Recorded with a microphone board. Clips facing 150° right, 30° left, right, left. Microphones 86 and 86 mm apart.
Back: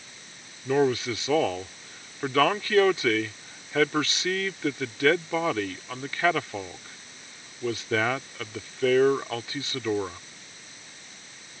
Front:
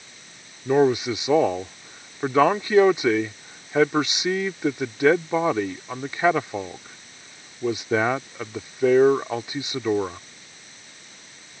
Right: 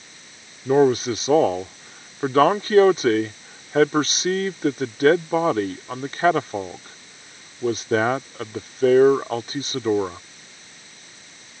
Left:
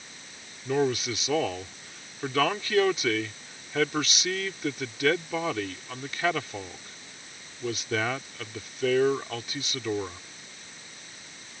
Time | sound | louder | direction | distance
0.7 | a man speaking | front 4 dB, right 9 dB | 40° right | ?